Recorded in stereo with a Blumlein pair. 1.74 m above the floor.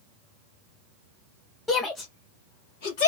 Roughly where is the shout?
Ahead.